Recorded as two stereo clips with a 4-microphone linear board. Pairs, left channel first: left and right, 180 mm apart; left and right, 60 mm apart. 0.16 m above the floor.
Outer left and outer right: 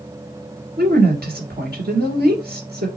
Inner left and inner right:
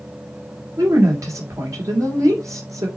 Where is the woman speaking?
65° right (ahead or behind), 2 m.